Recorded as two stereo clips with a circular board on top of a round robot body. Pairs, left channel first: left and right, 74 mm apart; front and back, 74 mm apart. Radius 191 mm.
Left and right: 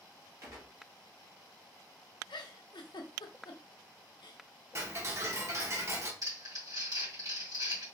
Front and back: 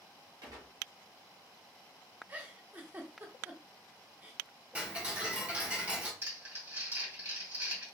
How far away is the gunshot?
About 0.6 m.